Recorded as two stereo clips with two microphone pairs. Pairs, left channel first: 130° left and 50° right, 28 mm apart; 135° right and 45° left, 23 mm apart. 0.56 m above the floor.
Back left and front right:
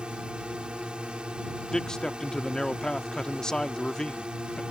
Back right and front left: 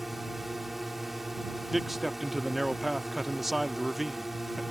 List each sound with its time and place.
0.0 s a drone: 35° right
1.7 s a man speaking: 105° left